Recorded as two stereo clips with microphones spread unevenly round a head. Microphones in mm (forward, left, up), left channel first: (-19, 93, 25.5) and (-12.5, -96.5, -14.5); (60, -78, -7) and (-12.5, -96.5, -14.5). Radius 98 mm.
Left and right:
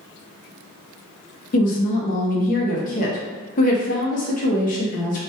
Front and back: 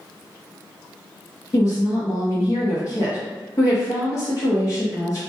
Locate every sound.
1.5 s a woman speaking: 50° left, 0.6 m